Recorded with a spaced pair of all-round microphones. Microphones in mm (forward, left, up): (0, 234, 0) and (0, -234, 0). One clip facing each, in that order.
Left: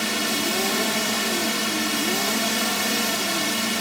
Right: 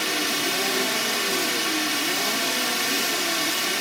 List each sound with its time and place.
0.0 s a drone: 65° left (ahead or behind)